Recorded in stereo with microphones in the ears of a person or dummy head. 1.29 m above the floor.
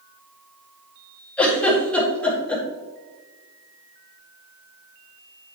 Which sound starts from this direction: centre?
A giggle, at 1.4 s.